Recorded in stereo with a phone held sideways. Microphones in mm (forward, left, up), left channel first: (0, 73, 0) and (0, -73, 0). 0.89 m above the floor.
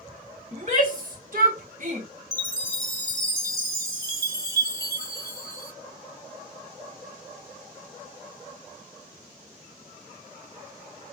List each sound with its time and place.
0.5 s a shout: 55° right (ahead or behind), 2 m; by 2.1 s 50° right (ahead or behind), 1.8 m
2.3 s a chime: 25° right (ahead or behind), 1.2 m